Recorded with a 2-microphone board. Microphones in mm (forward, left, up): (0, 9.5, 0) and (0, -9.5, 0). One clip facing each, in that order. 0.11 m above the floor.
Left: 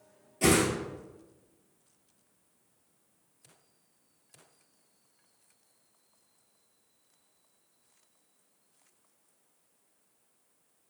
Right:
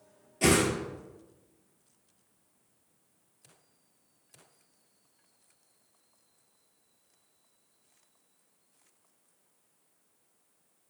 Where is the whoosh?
10° right (ahead or behind), 1.1 m.